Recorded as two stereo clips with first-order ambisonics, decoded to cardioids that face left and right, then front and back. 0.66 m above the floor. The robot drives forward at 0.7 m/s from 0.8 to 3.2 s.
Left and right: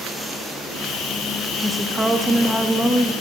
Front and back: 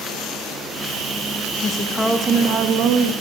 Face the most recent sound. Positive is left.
turn(degrees=-175)